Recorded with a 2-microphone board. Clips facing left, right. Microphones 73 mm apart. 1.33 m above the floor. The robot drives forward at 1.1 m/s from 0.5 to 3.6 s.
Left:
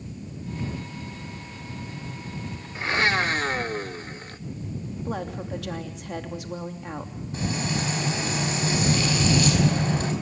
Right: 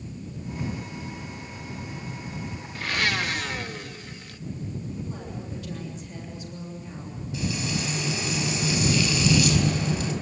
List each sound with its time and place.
2.8 s a blender: 25° left (ahead or behind), 1.2 m; by 4.4 s 40° left (ahead or behind), 0.8 m
5.0 s a woman speaking: 85° left, 3 m
7.3 s frying: 45° left (ahead or behind), 4.5 m